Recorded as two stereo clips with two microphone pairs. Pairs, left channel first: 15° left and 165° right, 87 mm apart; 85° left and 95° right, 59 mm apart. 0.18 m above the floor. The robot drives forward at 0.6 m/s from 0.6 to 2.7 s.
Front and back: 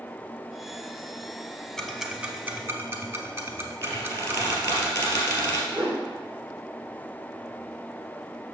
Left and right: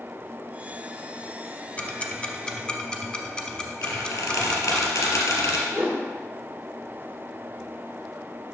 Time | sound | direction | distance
1.8 | ticking | 85° left | 0.7 m
3.8 | a squeak | 80° left | 2 m
5.7 | a whoosh | 165° right | 3 m